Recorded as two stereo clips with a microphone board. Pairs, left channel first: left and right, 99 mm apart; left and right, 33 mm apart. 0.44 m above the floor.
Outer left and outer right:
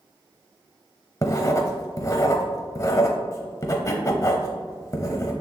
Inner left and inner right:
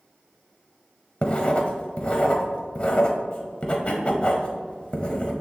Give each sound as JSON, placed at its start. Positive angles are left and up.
{"t": 1.2, "sound": "writing", "side_deg": 35, "distance_m": 1.0}